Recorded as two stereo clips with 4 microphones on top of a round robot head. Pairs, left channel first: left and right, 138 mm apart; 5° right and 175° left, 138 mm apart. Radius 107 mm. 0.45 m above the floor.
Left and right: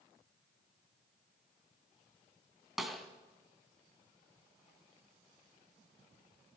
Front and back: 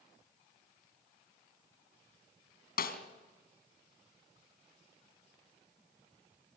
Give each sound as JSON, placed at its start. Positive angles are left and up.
{"t": 2.8, "sound": "a snare drum", "azimuth_deg": 0, "distance_m": 2.5}